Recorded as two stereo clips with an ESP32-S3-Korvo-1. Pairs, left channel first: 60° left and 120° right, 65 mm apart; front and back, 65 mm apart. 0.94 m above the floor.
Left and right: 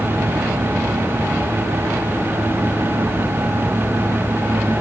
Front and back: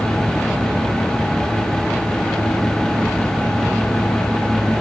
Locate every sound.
Only background noise.